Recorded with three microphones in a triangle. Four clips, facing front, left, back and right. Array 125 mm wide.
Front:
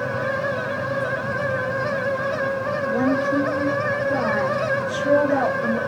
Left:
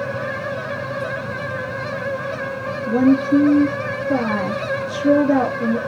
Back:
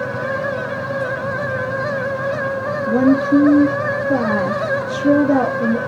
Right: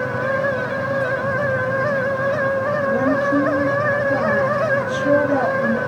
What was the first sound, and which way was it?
A woman speaking, 150° left.